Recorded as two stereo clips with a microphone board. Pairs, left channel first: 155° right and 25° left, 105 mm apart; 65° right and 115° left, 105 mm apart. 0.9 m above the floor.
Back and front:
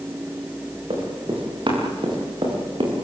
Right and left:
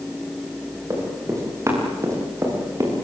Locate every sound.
0.9 s running footsteps: 50° left, 10 m; by 3.1 s 55° left, 8.5 m